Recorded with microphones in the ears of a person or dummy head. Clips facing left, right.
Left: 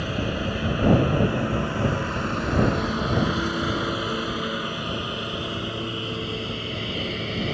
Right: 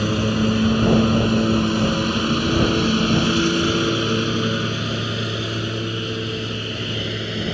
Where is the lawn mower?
60° right (ahead or behind); by 7.5 s 15° right (ahead or behind).